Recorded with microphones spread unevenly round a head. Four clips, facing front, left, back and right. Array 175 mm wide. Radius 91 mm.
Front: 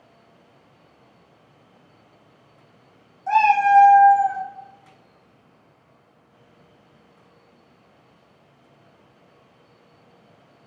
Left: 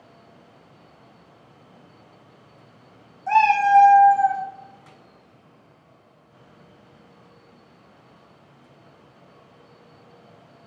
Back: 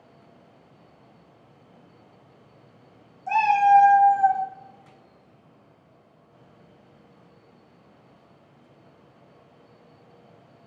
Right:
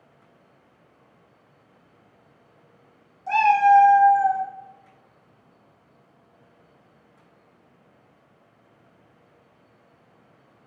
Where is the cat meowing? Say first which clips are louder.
Even, front 2 dB; 25° left, 1.2 m; by 4.4 s 75° left, 1.5 m.